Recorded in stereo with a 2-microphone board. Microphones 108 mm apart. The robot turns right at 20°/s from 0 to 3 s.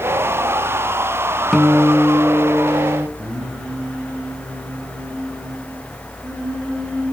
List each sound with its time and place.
1.5 s a guitar: 5° left (ahead or behind), 1.1 m; by 3.1 s 20° right (ahead or behind), 1.1 m
3.2 s singing: 10° right (ahead or behind), 6 m